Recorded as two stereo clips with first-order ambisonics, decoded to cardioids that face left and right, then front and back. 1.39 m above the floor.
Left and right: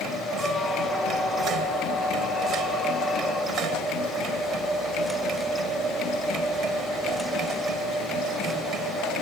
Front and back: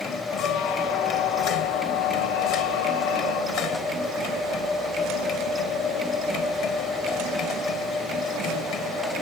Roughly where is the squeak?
Ahead.